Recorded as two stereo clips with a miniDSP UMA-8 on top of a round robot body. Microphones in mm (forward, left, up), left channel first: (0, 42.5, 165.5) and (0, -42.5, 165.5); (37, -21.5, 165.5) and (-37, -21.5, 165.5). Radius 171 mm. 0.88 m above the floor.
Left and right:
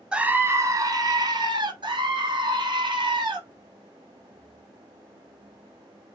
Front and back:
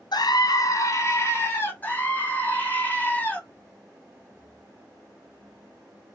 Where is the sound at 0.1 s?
10° right, 0.7 m; by 1.7 s 55° right, 1.6 m.